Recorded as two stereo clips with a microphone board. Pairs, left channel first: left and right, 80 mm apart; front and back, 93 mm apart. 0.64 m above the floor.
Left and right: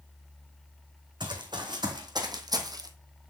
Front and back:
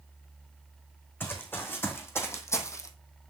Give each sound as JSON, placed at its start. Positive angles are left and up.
{"t": 1.2, "sound": "running footsteps", "azimuth_deg": -70, "distance_m": 2.5}